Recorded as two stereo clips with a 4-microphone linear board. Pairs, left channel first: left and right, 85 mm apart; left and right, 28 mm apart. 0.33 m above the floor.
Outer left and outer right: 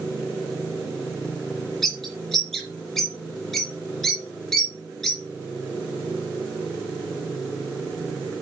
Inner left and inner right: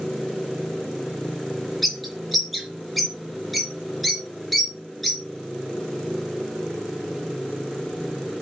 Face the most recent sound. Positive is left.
turn(degrees=5)  # may be behind; listen again after turning